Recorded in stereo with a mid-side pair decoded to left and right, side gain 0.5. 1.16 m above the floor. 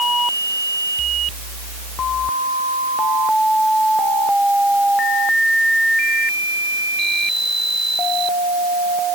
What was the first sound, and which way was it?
Only background noise.